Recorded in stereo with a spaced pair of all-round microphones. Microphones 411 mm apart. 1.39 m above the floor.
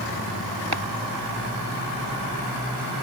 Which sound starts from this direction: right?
Chopping, at 0.7 s.